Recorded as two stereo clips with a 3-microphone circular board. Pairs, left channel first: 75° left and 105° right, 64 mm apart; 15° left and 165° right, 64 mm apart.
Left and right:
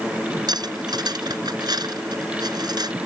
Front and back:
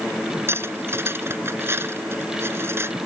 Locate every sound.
0.5 s cutlery clinking: 110° right